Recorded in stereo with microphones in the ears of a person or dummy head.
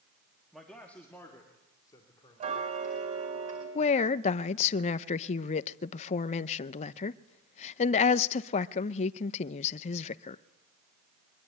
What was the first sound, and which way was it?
A man speaking, 5° left (ahead or behind).